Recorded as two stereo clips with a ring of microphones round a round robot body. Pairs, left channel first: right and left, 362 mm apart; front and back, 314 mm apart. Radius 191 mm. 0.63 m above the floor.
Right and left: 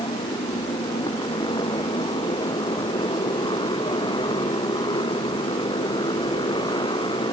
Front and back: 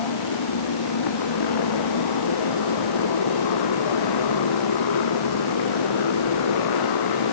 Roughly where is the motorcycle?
Ahead.